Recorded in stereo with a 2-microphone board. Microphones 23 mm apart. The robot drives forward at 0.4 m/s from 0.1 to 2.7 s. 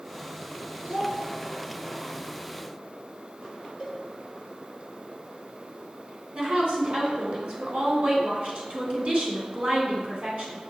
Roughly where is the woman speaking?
Right.